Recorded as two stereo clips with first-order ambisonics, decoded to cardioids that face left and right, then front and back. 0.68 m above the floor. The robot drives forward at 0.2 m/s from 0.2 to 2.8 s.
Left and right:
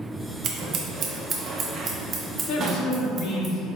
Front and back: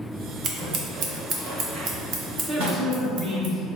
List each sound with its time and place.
0.4 s scissors: 135° right, 0.6 m; by 3.5 s 155° right, 1.0 m
2.5 s a woman speaking: 110° left, 0.8 m; by 3.7 s 115° left, 0.8 m